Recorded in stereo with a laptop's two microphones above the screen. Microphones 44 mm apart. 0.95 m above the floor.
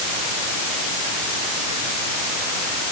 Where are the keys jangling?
No keys jangling in this recording.